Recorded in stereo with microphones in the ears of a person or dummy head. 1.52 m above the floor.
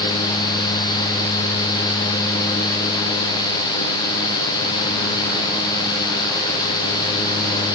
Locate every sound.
Only background noise.